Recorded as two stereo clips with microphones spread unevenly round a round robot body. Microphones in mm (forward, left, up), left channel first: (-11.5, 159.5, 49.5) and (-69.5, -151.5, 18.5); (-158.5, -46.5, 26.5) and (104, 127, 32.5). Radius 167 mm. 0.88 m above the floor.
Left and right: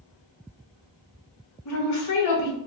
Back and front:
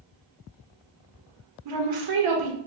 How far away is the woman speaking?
About 1.0 m.